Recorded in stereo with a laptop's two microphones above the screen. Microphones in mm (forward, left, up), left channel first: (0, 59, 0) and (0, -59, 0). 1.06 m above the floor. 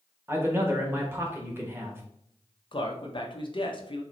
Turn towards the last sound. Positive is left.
turn(degrees=45)  # may be behind; listen again after turning